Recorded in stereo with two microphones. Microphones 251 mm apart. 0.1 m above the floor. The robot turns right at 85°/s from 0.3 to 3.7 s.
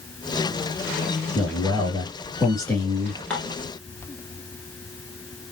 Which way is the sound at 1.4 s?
5° left (ahead or behind).